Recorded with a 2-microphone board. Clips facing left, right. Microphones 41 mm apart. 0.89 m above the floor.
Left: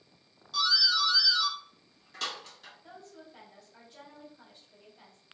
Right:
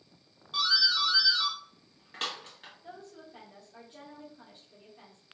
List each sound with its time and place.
0.5 s a doorbell: 35° right (ahead or behind), 1.9 m
2.8 s a woman speaking: 30° right (ahead or behind), 1.9 m